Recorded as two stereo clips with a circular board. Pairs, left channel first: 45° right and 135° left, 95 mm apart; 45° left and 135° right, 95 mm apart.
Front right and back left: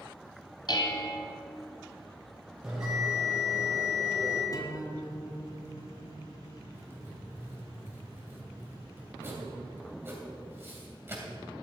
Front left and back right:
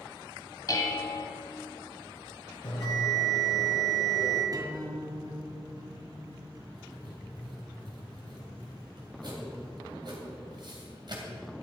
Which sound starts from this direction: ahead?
Dishes clattering, at 0.7 s.